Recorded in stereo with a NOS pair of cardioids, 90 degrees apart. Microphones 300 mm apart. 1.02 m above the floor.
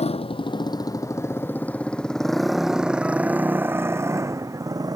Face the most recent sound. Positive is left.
turn(degrees=-10)